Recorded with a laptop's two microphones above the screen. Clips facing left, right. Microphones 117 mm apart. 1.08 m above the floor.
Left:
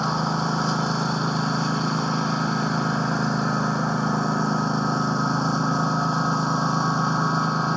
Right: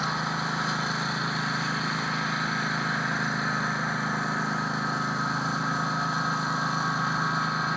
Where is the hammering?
I don't hear hammering.